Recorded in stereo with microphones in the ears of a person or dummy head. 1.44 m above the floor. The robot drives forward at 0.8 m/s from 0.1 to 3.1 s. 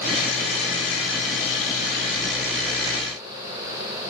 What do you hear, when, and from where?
Only background noise.